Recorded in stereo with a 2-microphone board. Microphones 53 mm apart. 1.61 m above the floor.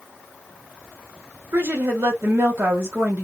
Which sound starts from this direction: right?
A woman speaking, at 1.5 s.